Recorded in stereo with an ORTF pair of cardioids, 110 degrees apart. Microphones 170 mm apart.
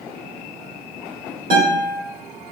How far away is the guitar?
About 2 m.